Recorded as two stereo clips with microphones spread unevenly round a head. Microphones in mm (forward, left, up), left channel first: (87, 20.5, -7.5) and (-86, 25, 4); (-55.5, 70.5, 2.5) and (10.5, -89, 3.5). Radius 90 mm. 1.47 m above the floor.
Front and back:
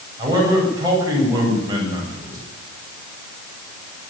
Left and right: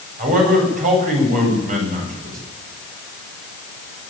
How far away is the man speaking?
About 8.5 m.